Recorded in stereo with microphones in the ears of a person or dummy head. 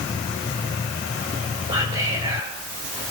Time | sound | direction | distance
1.7 | whispering | 20° right (ahead or behind) | 5.5 m